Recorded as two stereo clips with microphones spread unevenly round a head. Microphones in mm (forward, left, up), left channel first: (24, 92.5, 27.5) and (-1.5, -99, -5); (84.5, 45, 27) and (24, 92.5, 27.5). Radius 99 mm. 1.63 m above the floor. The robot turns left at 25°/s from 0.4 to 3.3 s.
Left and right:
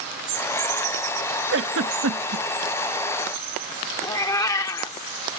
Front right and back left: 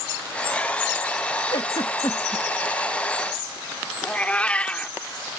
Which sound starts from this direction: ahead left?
A cat meowing, at 4.0 s.